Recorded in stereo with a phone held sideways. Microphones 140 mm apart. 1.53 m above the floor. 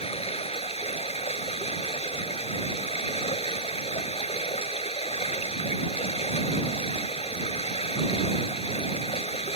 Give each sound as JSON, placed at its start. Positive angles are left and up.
{"t": 0.0, "sound": "running water", "side_deg": 45}